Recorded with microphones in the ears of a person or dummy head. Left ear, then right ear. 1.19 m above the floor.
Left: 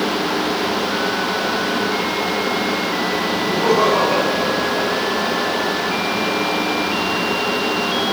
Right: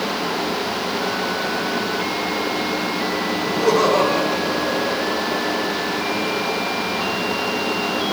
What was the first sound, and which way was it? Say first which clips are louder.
Laughter: left 1 dB; 80° right.